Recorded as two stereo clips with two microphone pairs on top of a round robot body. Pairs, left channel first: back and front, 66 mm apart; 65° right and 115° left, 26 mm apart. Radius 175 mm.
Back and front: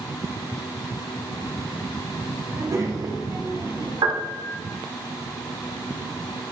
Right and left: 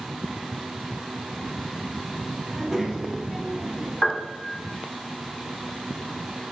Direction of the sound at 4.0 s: 20° left.